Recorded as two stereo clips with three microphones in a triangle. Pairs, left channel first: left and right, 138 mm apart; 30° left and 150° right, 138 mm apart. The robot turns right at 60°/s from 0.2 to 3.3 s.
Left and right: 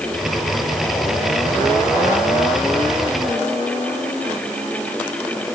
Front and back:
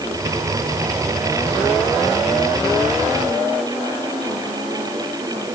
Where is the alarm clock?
I don't hear an alarm clock.